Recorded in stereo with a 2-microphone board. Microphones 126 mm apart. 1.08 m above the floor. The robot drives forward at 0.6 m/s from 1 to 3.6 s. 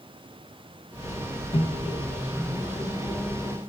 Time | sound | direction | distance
1.5 | a microwave | 45° left (ahead or behind) | 1.2 m